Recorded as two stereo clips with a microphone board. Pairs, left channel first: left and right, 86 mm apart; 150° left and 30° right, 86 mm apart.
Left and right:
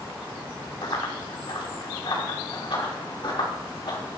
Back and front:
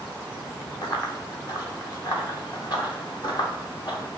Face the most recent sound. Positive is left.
turn(degrees=115)